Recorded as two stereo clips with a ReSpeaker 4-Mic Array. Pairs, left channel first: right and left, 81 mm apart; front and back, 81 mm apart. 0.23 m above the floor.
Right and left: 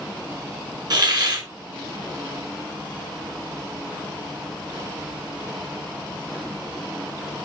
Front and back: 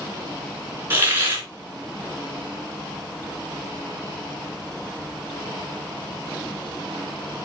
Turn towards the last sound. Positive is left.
turn(degrees=120)